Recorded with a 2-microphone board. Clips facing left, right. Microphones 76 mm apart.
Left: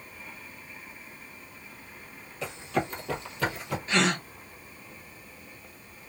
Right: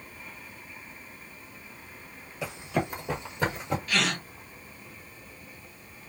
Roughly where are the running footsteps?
Centre.